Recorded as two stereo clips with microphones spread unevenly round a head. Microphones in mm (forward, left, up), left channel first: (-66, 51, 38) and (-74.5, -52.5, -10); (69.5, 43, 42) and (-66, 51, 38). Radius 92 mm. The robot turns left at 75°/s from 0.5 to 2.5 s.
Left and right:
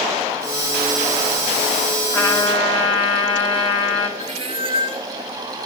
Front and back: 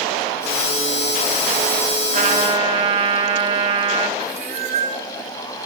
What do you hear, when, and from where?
2.1 s a trumpet: 155° left, 2.5 m; by 4.1 s 130° left, 2.5 m
4.2 s a cat meowing: 130° right, 1.7 m